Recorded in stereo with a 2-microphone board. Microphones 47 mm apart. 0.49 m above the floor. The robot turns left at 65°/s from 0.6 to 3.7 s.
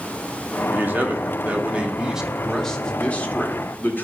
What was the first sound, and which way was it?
A man speaking, 65° right.